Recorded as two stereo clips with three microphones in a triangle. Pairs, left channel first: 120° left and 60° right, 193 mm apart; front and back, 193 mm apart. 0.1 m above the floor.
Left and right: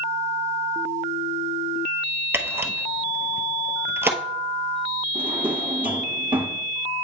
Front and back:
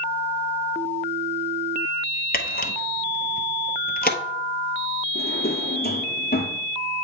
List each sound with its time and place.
2.3 s a camera shutter: 15° left, 0.8 m
5.2 s a drawer: 20° left, 1.2 m